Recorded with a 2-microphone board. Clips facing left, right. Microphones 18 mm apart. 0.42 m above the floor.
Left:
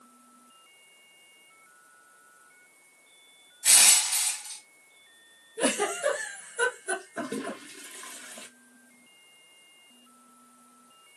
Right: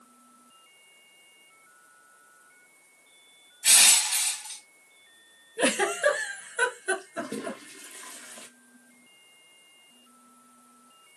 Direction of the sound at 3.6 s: 70° right (ahead or behind).